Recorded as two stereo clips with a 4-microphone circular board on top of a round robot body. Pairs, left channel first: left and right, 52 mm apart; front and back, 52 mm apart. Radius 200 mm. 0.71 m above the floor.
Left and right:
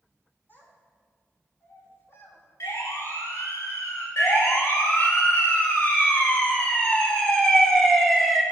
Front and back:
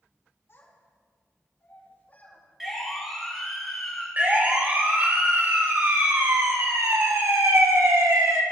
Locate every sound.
0.5 s a child speaking: 40° left, 6.5 m; by 2.4 s 65° left, 6.5 m
2.6 s a siren: 90° left, 4.5 m; by 4.1 s 95° left, 6.5 m
4.2 s a siren: 125° left, 2.5 m; by 8.4 s straight behind, 2.0 m